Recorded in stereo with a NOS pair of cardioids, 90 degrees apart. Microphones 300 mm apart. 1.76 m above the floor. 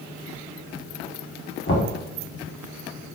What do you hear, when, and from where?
1.7 s knocking: 40° left, 1.4 m